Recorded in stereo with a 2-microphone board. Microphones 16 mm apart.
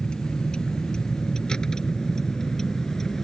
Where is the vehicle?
55° left (ahead or behind); by 3.2 s 20° left (ahead or behind).